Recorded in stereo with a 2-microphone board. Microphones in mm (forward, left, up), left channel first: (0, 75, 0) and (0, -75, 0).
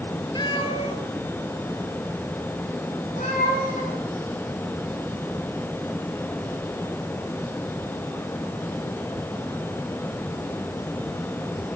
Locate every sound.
0.3 s a cat meowing: 30° left (ahead or behind), 2 m; by 4.0 s 60° left (ahead or behind), 5 m